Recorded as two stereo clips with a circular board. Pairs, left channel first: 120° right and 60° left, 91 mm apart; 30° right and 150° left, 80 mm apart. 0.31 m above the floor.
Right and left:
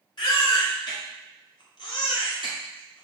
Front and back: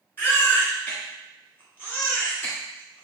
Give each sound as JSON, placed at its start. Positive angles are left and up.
{"t": 0.2, "sound": "a baby crying", "azimuth_deg": -90, "distance_m": 1.8}